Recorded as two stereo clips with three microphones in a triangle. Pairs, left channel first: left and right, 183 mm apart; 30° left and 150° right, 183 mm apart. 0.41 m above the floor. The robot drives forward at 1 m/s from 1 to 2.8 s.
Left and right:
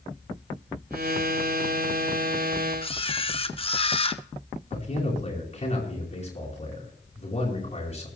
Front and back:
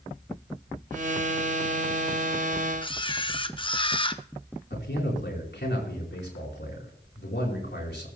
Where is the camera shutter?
65° left, 0.6 m.